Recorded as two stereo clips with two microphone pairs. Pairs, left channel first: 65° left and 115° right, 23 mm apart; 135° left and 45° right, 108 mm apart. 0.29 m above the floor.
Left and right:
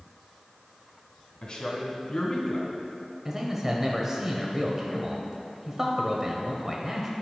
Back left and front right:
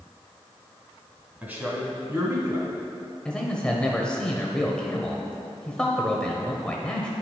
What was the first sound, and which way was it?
A man speaking, 25° left.